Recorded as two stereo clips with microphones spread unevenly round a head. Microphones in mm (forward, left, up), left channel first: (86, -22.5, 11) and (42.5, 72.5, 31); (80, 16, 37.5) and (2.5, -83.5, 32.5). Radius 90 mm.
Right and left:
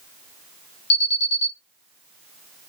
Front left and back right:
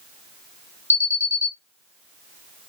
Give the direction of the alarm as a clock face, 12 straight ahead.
2 o'clock.